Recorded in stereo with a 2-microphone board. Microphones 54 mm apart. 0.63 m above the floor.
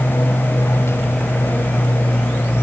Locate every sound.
0.0 s an aircraft: 55° left (ahead or behind); by 2.6 s 50° left (ahead or behind)